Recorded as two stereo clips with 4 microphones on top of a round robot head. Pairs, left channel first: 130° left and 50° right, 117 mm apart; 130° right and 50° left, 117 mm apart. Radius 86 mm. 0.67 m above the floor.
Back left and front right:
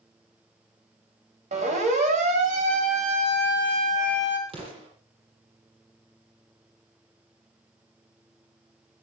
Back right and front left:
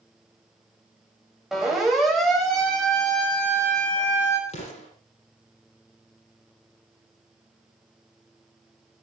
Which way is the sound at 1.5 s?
35° right.